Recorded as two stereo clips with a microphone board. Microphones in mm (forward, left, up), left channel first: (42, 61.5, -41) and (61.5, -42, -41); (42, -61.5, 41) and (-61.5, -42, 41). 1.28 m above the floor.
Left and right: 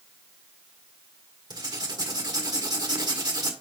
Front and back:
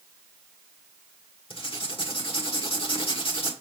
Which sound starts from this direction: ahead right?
Writing, at 1.5 s.